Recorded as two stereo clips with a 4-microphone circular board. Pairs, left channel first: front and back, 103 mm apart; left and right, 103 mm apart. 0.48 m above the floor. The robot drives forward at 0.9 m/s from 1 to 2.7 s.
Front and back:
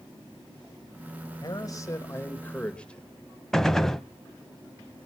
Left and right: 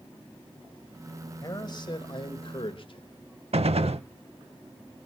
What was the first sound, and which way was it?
A man speaking, 45° left.